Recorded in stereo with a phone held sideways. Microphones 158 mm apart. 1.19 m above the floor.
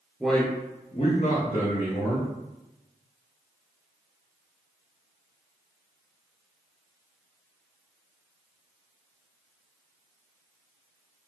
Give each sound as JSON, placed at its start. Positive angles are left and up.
{"t": 0.2, "sound": "a man speaking", "side_deg": -5, "distance_m": 0.6}